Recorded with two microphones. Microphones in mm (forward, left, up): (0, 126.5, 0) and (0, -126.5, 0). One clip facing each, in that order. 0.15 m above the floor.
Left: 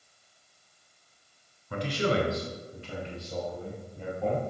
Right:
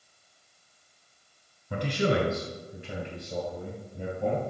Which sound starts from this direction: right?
A man speaking, at 1.7 s.